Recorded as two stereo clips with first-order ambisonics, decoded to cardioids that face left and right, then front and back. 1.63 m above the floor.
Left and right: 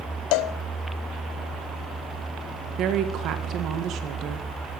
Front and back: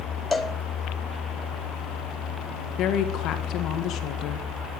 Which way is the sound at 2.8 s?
45° right.